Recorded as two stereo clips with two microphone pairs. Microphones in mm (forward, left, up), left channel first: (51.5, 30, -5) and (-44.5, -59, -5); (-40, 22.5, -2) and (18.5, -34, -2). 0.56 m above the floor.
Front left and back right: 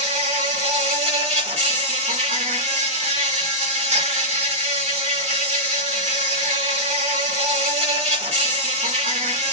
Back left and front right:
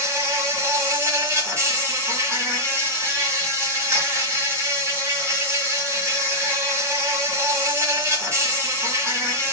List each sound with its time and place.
0.0 s an insect: 105° right, 0.9 m